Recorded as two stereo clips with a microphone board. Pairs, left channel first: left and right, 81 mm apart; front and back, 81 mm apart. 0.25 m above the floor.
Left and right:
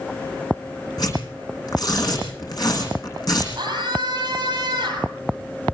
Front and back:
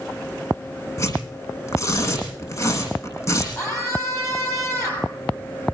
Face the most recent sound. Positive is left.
turn(degrees=-55)